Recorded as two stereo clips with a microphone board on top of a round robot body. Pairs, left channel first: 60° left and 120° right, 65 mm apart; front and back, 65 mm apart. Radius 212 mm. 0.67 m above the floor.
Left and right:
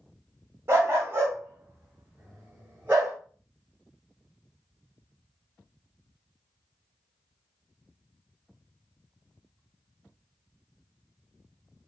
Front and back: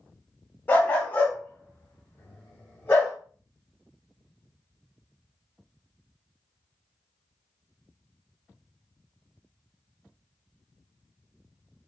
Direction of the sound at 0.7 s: 65° right.